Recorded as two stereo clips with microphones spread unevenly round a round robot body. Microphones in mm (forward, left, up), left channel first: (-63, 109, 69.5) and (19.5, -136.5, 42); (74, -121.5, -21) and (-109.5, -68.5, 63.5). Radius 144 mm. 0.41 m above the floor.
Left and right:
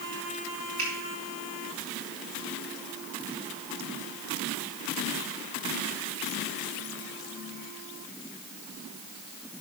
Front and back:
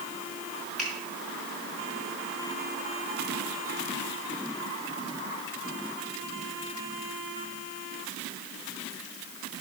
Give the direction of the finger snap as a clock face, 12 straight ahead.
3 o'clock.